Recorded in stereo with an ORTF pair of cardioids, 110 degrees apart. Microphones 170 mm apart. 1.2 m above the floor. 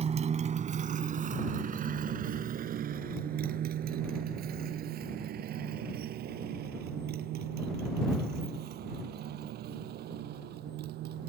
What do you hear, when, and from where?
0.0 s a motorcycle: 40° right; by 11.3 s 75° right